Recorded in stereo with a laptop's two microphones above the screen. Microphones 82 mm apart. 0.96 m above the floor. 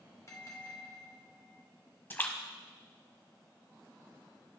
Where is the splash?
25° left (ahead or behind), 0.8 m.